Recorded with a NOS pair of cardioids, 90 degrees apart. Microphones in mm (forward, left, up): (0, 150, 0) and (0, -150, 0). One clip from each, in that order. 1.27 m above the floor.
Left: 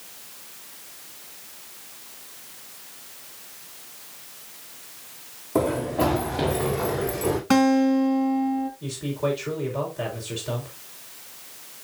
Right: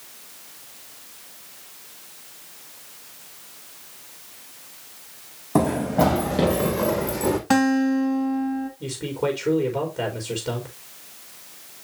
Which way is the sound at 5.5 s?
60° right.